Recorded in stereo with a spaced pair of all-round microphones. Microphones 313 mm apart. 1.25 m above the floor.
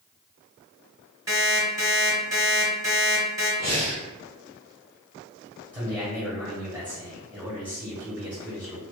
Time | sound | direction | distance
1.3 | an alarm clock | 10° right (ahead or behind) | 1.6 m
3.6 | breathing | 55° left (ahead or behind) | 1.0 m
5.7 | a man speaking | 5° right (ahead or behind) | 1.5 m